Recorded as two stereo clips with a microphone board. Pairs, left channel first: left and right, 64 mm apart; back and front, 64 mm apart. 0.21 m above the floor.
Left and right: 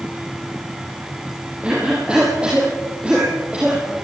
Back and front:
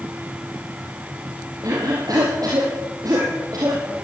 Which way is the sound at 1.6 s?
20° right.